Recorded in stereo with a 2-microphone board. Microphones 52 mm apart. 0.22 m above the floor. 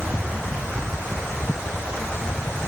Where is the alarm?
No alarm in this recording.